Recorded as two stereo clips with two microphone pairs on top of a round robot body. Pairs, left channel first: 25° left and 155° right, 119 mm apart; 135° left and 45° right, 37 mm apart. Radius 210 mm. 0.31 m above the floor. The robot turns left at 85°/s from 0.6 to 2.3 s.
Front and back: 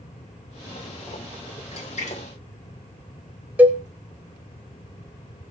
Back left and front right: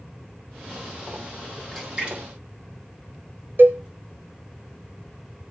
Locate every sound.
1.7 s a splash: 45° left, 8 m; by 3.9 s 5° right, 8 m
3.6 s a cowbell: 80° right, 0.6 m